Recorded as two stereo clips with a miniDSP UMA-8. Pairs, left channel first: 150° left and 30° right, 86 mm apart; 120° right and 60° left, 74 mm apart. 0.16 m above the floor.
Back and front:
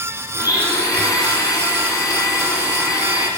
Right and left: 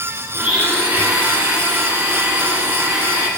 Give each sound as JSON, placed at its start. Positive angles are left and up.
{"t": 0.3, "sound": "a blender", "azimuth_deg": 130, "distance_m": 1.8}